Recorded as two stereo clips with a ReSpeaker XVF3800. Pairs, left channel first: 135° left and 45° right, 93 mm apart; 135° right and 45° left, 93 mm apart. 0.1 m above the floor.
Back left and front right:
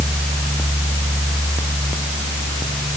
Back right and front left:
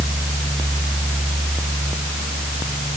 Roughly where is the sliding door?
I don't hear a sliding door.